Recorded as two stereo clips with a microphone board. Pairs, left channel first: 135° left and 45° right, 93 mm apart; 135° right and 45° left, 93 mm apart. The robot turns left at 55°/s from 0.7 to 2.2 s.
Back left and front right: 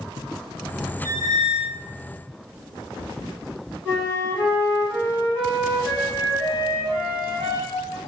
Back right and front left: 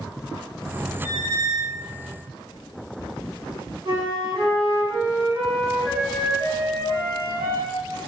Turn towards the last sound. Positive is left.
turn(degrees=20)